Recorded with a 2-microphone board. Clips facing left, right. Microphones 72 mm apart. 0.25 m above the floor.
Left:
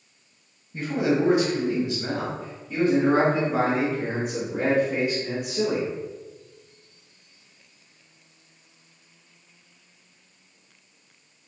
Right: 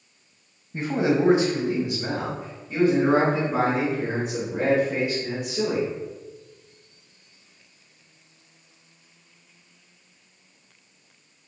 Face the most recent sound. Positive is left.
turn(degrees=5)  # may be behind; listen again after turning